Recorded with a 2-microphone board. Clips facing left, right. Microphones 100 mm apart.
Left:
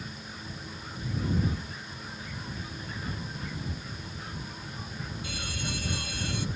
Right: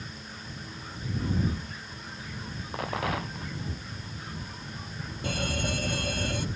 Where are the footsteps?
No footsteps in this recording.